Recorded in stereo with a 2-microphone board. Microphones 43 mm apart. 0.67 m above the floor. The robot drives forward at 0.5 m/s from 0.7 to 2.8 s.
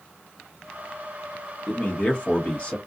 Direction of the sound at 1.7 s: 35° left (ahead or behind).